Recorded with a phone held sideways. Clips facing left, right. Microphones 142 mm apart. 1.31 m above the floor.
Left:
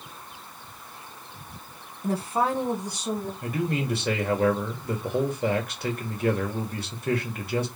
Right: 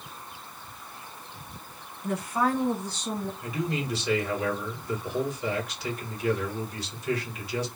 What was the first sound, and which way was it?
A woman speaking, 35° left (ahead or behind).